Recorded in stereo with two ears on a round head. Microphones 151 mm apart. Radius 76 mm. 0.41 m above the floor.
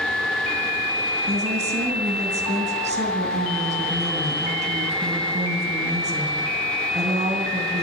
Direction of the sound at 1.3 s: 40° right (ahead or behind).